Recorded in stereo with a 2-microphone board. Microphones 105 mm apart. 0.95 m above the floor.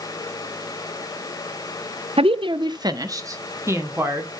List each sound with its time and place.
2.2 s a woman speaking: 65° right (ahead or behind), 0.5 m; by 4.3 s 25° right (ahead or behind), 2.5 m